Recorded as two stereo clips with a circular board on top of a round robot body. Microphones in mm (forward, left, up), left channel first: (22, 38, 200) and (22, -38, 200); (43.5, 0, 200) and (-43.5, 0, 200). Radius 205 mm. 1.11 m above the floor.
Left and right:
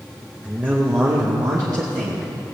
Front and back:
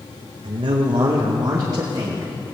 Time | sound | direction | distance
0.4 | a man speaking | 165° right | 1.1 m